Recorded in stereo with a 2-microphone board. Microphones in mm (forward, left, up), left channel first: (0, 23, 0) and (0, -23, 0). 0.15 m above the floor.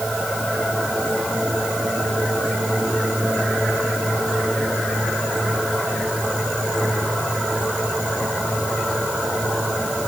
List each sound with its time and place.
Only background noise.